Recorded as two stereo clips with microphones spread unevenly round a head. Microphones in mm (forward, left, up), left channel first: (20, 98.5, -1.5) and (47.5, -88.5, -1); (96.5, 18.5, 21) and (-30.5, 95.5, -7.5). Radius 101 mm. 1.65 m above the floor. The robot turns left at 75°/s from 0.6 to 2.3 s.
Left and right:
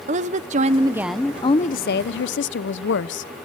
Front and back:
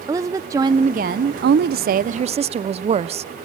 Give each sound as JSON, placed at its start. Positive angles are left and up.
{"t": 0.1, "sound": "a woman speaking", "azimuth_deg": -135, "distance_m": 0.7}